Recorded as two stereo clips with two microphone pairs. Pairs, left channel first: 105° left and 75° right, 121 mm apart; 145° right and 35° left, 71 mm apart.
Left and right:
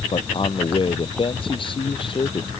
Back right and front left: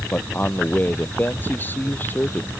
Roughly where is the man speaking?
Behind left.